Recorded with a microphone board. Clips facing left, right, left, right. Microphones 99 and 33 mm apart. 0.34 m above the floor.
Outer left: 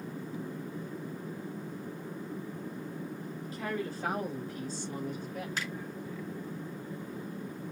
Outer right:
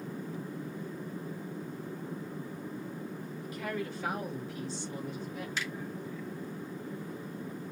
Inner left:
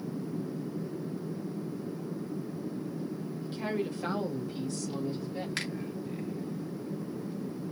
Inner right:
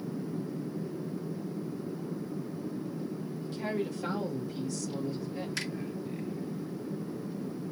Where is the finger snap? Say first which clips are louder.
Outer right 2 dB, inner left 1 dB; 45° left (ahead or behind), 1.9 m.